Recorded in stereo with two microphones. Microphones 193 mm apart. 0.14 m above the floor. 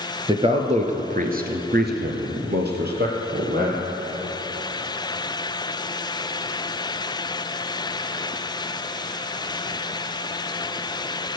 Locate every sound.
0.3 s a man speaking: 25° right (ahead or behind), 2 m; by 3.9 s 50° right (ahead or behind), 3.5 m